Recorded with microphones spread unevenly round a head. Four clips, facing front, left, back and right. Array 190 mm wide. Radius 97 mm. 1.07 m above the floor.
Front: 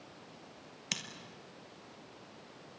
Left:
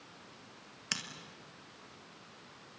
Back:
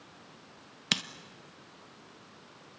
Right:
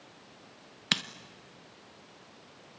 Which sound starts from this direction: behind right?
Scissors, at 0.9 s.